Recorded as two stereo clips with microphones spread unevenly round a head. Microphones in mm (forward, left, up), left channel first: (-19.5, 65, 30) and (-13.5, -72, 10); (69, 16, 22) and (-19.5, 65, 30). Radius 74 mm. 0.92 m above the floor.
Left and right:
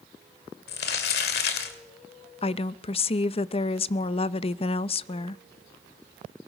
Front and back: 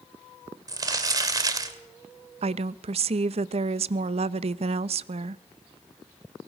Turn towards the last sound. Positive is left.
turn(degrees=140)